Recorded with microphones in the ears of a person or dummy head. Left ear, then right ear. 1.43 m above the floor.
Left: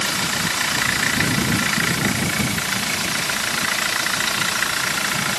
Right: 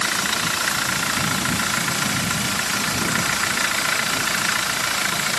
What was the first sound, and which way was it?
Only background noise.